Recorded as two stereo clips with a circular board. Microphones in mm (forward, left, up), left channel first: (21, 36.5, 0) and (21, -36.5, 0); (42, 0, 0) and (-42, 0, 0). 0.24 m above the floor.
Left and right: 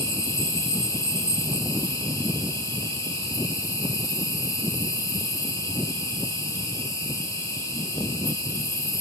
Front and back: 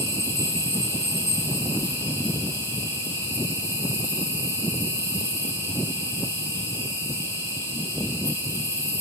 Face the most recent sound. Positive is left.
turn(degrees=130)